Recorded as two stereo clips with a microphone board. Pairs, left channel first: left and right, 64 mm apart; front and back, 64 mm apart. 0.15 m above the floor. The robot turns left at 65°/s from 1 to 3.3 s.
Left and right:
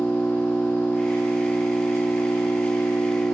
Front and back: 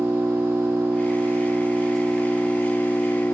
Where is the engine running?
160° left, 0.8 m; by 3.4 s 10° left, 0.8 m.